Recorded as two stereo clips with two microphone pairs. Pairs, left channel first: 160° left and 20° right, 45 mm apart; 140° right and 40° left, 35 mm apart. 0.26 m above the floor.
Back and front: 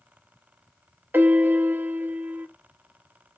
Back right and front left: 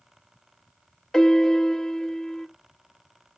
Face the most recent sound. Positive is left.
turn(degrees=-65)